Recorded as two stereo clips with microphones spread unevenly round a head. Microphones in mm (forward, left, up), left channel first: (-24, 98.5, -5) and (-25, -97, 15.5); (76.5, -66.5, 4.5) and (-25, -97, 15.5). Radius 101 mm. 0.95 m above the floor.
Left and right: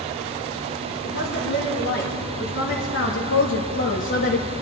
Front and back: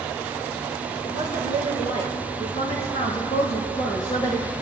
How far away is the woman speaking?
About 3 m.